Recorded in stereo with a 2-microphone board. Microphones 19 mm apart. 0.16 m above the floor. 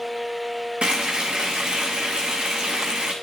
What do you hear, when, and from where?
0.8 s frying: 60° right (ahead or behind), 2 m